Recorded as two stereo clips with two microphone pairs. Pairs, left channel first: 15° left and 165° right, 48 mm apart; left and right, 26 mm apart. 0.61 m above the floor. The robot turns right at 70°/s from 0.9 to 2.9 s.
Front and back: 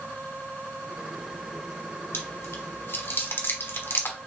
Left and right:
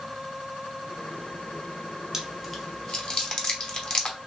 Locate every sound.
2.1 s chewing: 20° right, 1.1 m; by 4.2 s 35° left, 1.1 m